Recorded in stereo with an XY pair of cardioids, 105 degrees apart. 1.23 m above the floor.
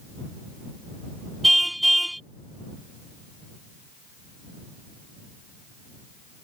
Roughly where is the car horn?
Ahead.